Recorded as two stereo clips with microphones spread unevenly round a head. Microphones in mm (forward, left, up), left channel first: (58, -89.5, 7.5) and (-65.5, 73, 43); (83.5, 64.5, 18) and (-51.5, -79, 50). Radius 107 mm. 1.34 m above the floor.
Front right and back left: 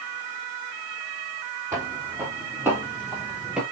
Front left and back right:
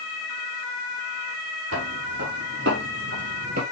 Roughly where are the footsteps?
Behind.